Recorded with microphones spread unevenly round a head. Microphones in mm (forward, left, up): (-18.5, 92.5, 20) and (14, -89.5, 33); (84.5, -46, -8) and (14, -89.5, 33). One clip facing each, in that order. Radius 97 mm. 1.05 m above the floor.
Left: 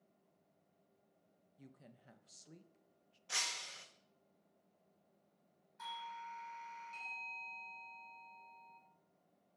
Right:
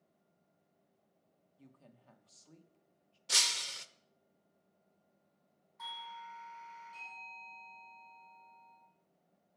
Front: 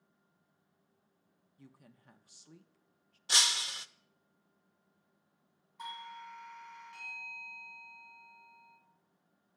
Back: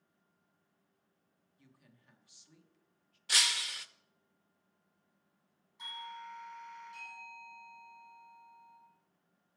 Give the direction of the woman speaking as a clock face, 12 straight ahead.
11 o'clock.